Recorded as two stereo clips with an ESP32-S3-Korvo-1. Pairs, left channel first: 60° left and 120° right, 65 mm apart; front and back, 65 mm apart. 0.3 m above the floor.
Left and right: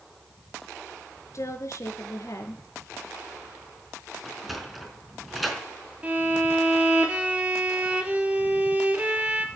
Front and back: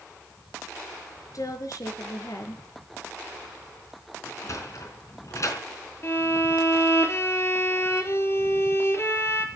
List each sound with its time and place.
1.3 s a woman speaking: 25° left, 5 m
4.2 s a sliding door: 30° right, 4 m
6.0 s a violin: 50° right, 3 m